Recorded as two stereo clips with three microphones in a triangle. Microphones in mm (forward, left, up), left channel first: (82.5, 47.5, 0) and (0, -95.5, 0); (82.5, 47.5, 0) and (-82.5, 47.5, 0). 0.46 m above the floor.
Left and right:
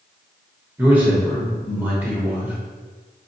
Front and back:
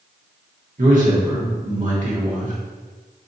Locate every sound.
0.8 s a man speaking: 165° left, 1.3 m